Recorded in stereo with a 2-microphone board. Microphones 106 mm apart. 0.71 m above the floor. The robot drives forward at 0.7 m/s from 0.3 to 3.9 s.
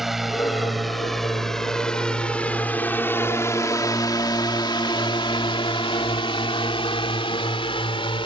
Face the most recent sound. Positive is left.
turn(degrees=55)  # may be behind; listen again after turning